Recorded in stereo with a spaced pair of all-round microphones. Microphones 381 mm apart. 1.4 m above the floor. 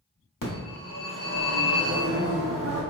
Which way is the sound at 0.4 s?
60° left (ahead or behind).